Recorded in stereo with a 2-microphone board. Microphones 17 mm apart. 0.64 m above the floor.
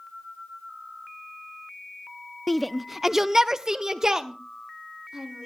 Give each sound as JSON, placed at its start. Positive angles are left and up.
{"t": 2.5, "sound": "a shout", "side_deg": 15, "distance_m": 0.6}